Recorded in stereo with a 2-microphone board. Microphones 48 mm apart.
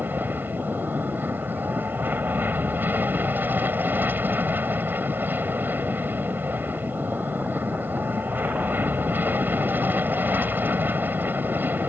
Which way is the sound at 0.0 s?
45° right (ahead or behind).